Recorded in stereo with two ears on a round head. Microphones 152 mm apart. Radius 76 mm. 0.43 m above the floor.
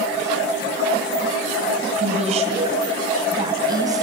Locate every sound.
2.0 s a woman speaking: 45° right (ahead or behind), 2.5 m; by 4.0 s 20° right (ahead or behind), 2.5 m